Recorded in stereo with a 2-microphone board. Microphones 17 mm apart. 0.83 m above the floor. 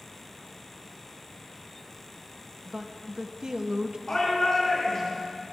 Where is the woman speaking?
35° right (ahead or behind), 1.0 m.